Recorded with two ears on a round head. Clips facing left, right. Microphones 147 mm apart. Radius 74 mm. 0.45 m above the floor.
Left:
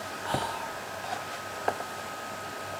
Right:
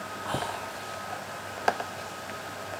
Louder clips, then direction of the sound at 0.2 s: Left 1 dB; 20° left (ahead or behind).